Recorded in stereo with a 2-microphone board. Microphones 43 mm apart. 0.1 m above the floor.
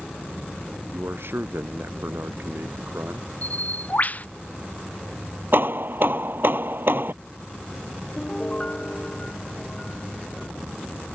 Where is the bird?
40° left (ahead or behind).